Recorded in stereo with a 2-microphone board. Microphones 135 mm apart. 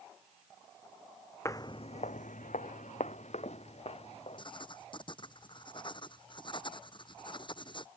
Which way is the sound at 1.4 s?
20° left (ahead or behind).